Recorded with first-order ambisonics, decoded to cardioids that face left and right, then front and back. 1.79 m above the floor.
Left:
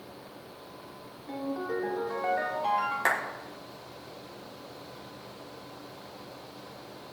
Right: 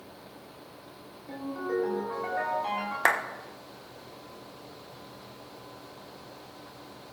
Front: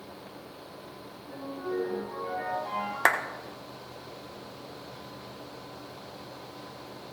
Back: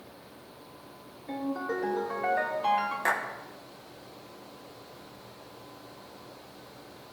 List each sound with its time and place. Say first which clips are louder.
1.3 s a ringtone: even, back 3 dB; straight behind, 3.5 m
3.0 s a clap: right 4 dB, front 6 dB; 30° right, 1.0 m